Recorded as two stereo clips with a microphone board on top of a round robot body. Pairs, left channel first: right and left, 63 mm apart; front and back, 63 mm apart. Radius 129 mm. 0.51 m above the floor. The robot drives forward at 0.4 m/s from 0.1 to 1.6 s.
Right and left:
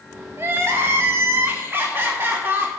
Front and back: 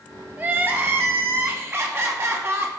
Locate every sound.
0.4 s crying: 125° left, 2.0 m; by 2.7 s 140° left, 2 m